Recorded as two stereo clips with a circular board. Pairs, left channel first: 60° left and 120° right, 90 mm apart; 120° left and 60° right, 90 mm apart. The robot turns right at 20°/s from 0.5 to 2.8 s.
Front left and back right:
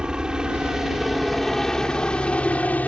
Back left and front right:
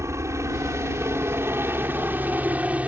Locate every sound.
0.0 s a helicopter: 45° right; by 2.9 s straight ahead